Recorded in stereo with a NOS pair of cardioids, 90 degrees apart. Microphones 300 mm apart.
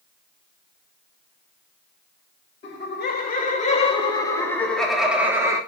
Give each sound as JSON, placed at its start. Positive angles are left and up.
{"t": 2.6, "sound": "laughter", "azimuth_deg": 45, "distance_m": 3.0}